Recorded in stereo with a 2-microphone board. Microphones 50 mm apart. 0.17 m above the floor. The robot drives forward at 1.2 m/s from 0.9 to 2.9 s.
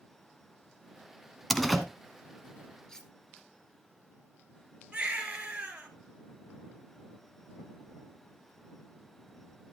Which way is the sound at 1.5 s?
5° left (ahead or behind).